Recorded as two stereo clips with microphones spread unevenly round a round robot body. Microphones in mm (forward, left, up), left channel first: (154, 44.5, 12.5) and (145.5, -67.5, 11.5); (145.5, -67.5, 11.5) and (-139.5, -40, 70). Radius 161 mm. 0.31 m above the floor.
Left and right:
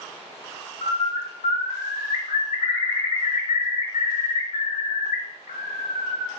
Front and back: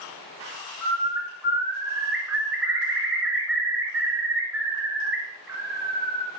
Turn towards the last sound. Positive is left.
turn(degrees=90)